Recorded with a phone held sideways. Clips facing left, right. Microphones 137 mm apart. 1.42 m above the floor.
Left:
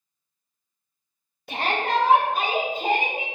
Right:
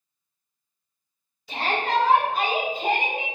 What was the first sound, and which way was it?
A shout, 60° left (ahead or behind).